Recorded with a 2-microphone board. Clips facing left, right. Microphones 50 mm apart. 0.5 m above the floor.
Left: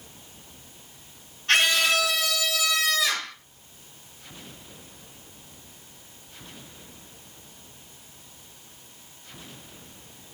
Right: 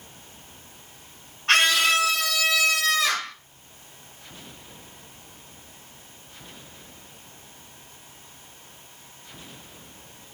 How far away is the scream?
About 4 m.